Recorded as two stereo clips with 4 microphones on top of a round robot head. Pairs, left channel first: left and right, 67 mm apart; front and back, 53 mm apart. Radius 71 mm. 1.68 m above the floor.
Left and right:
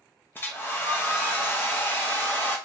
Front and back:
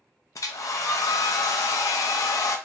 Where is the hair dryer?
25° left, 0.6 m.